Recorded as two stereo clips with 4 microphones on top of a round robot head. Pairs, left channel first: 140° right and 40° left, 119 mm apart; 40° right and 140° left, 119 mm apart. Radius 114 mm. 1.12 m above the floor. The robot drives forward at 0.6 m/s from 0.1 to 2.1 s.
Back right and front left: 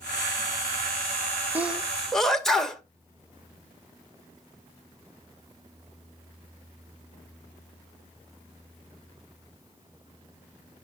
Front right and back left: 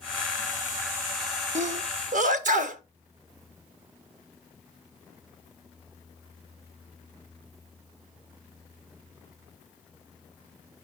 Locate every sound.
1.6 s a sneeze: 115° left, 0.9 m; by 2.8 s 135° left, 1.1 m